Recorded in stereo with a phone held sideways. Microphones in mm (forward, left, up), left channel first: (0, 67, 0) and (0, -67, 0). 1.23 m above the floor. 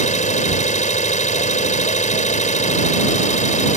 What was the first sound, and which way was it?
An engine running, 65° left (ahead or behind).